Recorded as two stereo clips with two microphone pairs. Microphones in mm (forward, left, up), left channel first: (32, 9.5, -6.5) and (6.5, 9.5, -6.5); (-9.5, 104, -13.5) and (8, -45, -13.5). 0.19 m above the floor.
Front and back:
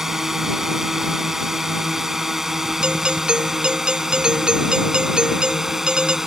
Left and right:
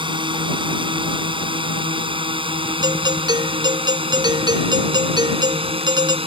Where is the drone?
115° right; by 6.3 s 110° right.